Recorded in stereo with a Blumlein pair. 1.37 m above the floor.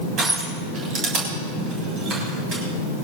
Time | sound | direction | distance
0.2 | crushing | 30° right | 6.5 m